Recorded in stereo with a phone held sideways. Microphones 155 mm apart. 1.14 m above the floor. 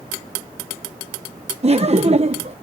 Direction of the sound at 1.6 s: 40° right (ahead or behind).